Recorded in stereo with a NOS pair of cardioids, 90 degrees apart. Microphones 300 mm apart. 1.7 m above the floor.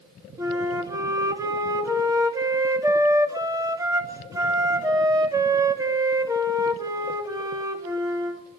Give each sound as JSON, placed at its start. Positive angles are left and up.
{"t": 0.4, "sound": "a flute", "azimuth_deg": -10, "distance_m": 3.0}